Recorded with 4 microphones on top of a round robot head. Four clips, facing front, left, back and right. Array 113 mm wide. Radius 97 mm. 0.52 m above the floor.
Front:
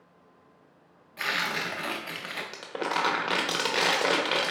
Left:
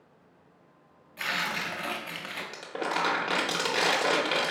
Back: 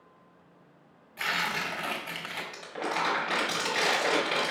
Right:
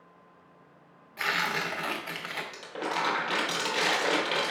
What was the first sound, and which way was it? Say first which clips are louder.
Tearing paper: right 2 dB, front 1 dB; 60° right.